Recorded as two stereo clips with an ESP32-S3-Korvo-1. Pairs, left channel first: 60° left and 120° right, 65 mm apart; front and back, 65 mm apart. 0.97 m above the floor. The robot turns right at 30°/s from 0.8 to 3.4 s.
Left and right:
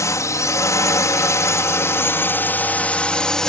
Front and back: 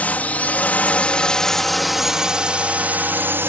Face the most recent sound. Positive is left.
turn(degrees=140)